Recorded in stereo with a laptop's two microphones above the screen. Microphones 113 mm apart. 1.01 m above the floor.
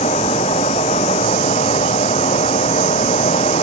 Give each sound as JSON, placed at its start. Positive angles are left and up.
{"t": 0.0, "sound": "a fan", "side_deg": 80}